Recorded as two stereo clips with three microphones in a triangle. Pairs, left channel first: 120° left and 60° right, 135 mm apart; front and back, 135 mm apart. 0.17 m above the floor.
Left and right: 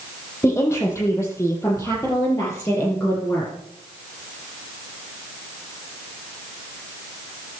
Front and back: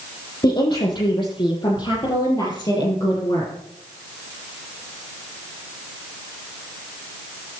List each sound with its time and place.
0.4 s a woman speaking: 55° left, 6 m; by 3.5 s 60° left, 4 m